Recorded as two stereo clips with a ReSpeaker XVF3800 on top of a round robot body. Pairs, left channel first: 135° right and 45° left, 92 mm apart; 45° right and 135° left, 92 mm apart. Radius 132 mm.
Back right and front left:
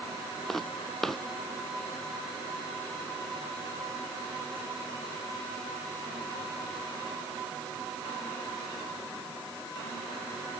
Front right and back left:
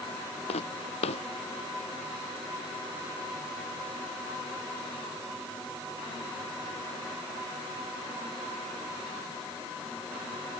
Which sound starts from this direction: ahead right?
Footsteps, at 0.5 s.